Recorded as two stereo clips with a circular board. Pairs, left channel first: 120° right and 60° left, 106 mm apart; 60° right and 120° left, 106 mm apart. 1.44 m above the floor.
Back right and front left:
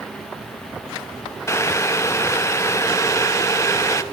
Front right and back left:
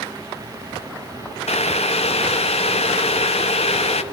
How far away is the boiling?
About 1.0 m.